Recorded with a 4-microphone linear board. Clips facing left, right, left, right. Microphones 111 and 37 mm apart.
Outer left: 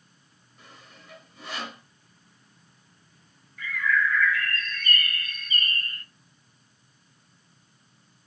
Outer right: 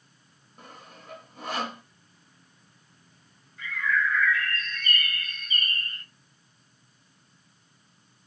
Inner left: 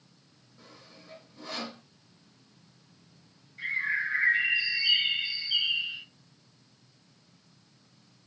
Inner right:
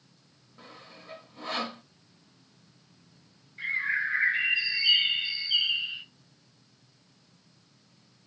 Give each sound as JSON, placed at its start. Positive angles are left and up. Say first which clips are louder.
{"t": 0.6, "sound": "sawing", "louder": "outer right 4 dB, inner right 4 dB", "side_deg": -50, "distance_m": 0.8}
{"t": 3.6, "sound": "a bird", "louder": "outer left 2 dB, inner right 1 dB", "side_deg": -20, "distance_m": 2.0}